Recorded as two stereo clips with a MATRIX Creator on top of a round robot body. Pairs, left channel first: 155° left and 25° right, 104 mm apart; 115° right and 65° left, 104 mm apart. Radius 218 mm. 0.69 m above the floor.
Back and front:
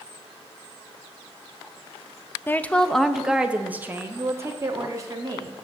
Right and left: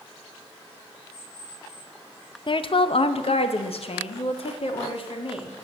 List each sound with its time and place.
2.5 s a woman speaking: 135° right, 0.9 m; by 5.5 s 80° right, 2 m